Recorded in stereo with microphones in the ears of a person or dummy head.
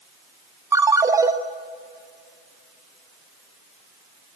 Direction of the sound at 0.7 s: 15° right (ahead or behind).